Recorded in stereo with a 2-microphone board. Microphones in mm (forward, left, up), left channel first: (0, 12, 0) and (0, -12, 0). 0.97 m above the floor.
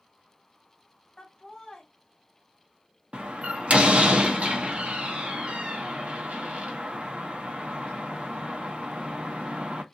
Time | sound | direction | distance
1.2 | laughter | 40° left (ahead or behind) | 1.8 m
3.1 | a door slam | 75° right (ahead or behind) | 0.8 m